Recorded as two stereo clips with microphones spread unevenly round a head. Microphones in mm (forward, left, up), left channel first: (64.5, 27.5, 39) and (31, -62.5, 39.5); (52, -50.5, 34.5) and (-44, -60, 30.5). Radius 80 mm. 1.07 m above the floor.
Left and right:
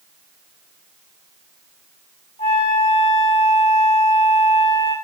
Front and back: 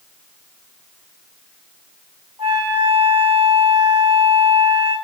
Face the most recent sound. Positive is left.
turn(degrees=115)